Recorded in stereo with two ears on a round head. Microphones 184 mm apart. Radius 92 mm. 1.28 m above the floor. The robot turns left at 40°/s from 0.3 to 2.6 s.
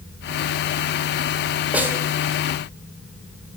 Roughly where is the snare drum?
Centre.